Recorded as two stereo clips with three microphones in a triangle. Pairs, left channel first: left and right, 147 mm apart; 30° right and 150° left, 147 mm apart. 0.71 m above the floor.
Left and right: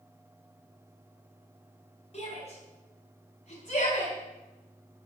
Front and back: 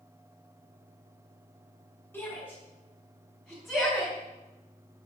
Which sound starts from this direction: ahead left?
A shout, at 2.1 s.